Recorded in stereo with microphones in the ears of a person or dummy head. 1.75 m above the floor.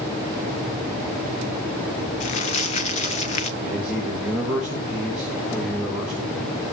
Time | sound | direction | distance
2.2 | crumpling | 35° left (ahead or behind) | 0.9 m
3.6 | a man speaking | 5° right (ahead or behind) | 4.5 m